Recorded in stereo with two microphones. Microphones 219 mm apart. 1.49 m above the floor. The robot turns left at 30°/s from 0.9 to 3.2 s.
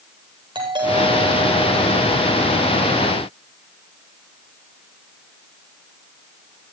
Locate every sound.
0.6 s a doorbell: 160° right, 9.5 m; by 2.8 s 145° left, 9.5 m